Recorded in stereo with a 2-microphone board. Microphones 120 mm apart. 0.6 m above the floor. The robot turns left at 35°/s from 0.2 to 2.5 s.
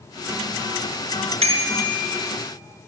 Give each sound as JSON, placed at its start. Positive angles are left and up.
{"t": 1.4, "sound": "a bicycle bell", "side_deg": -60, "distance_m": 5.0}